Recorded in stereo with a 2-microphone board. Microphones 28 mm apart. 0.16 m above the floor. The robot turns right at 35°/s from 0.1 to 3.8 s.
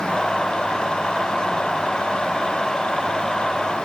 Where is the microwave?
No microwave in this recording.